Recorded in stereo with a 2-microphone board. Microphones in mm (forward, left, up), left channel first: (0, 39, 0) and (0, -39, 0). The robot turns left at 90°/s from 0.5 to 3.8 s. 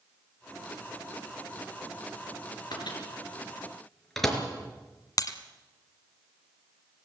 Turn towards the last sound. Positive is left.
turn(degrees=50)  # may be behind; listen again after turning